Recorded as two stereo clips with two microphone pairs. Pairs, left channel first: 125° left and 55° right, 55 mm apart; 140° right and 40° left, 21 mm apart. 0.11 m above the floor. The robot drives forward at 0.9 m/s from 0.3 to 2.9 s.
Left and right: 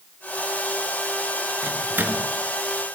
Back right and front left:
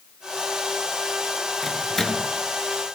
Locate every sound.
1.6 s a microwave: 70° right, 1.9 m; by 2.3 s 95° right, 1.8 m